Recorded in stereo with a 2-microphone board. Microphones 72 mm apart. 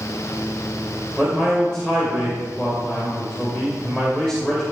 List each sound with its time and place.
1.2 s a man speaking: 10° left (ahead or behind), 3 m